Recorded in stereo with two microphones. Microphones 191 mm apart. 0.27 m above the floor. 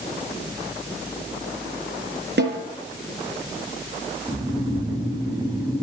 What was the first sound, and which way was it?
A snare drum, 70° right (ahead or behind).